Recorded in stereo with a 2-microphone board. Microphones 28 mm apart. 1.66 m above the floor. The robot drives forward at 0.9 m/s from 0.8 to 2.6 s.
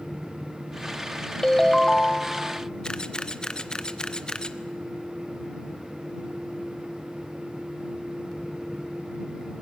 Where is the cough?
No cough in this recording.